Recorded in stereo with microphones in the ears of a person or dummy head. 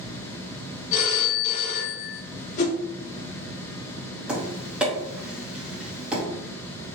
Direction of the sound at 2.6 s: 45° left (ahead or behind).